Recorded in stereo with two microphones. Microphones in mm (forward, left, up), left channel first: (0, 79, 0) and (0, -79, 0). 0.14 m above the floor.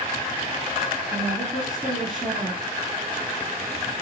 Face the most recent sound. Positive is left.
turn(degrees=0)  # may be behind; listen again after turning